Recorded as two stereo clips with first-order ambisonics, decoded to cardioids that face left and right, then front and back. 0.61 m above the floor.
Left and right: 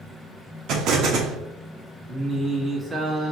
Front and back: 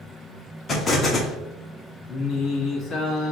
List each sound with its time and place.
0.7 s an explosion: 65° right, 0.8 m
2.1 s singing: 30° right, 0.9 m